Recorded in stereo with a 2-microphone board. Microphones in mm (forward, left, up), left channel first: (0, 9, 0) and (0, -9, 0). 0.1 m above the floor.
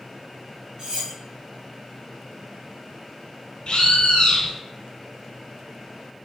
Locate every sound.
0.8 s cutlery clinking: 50° right (ahead or behind), 1.7 m
3.7 s a bird: 60° left (ahead or behind), 0.8 m